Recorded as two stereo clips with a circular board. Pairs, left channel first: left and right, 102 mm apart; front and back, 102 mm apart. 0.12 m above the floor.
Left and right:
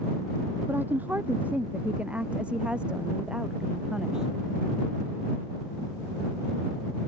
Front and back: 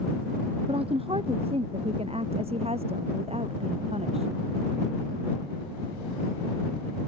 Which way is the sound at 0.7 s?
160° right.